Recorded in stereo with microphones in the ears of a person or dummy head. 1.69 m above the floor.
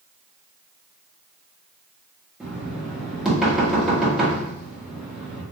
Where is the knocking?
Centre (ahead or behind), 1.1 m.